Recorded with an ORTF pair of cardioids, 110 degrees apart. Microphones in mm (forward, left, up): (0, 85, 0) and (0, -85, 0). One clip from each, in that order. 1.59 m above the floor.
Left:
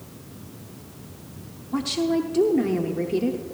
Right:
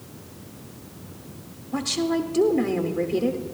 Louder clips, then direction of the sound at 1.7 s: Left 1 dB; 10° left.